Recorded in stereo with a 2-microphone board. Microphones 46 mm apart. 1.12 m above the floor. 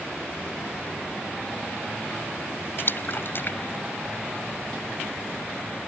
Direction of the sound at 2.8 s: 50° left (ahead or behind).